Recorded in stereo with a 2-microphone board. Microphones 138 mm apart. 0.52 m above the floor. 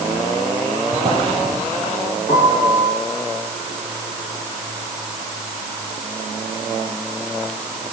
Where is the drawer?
45° right (ahead or behind), 9.5 m.